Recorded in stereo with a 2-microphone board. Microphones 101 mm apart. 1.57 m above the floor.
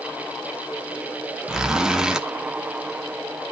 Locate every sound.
1.5 s a zipper: 5° right (ahead or behind), 1.1 m